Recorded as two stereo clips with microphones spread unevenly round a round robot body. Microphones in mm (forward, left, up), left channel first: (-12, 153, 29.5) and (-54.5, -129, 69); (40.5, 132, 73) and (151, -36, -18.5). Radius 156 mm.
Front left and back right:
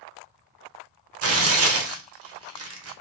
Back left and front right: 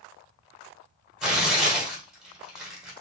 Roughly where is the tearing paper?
Right.